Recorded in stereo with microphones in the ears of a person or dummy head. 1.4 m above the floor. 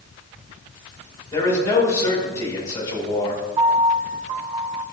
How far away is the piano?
About 1.6 m.